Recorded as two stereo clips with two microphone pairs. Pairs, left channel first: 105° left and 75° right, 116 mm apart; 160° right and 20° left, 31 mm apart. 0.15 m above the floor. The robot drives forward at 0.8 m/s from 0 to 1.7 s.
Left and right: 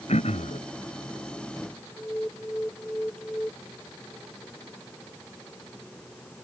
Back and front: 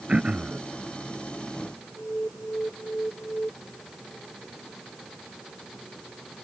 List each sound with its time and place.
0.1 s throat clearing: 80° left; by 0.6 s 85° left
2.0 s an alarm: straight behind